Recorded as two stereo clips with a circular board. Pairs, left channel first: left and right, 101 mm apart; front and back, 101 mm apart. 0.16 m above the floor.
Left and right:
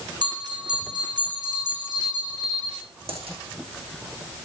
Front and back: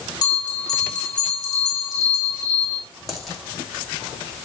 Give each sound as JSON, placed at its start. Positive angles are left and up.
{"t": 0.2, "sound": "a bell", "azimuth_deg": -50, "distance_m": 6.0}
{"t": 3.1, "sound": "a dropped coin", "azimuth_deg": -90, "distance_m": 5.5}